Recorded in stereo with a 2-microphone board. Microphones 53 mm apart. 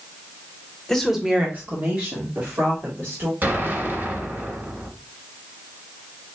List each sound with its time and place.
0.9 s a woman speaking: 10° left (ahead or behind), 1.1 m; by 3.3 s 50° right (ahead or behind), 3.5 m
3.4 s an explosion: 45° right (ahead or behind), 1.9 m